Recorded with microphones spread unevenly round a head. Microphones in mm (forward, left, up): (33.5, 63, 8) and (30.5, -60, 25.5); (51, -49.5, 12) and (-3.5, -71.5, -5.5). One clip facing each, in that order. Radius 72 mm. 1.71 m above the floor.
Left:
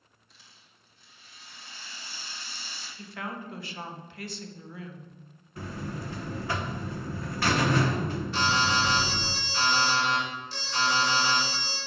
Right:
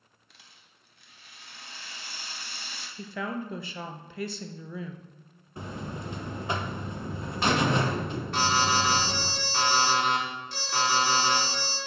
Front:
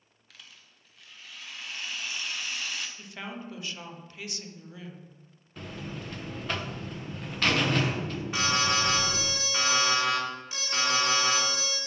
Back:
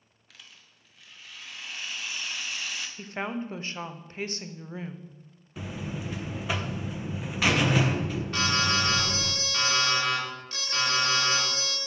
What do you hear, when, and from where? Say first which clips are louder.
0.3 s a rattle: right 1 dB, even; 65° right, 1.3 m
3.0 s a woman speaking: right 5 dB, back 7 dB; 105° right, 0.9 m
5.6 s a buzzer: even, back 3 dB; 55° right, 0.8 m
8.3 s an alarm: right 2 dB, even; 55° right, 4.5 m